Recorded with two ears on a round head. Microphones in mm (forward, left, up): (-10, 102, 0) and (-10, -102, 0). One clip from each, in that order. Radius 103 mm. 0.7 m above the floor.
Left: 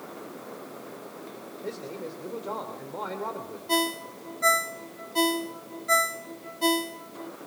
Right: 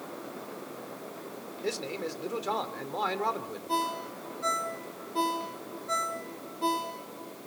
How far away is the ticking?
I don't hear ticking.